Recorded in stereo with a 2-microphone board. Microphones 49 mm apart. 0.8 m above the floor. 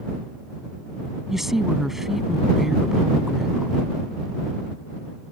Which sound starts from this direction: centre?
A woman speaking, at 1.3 s.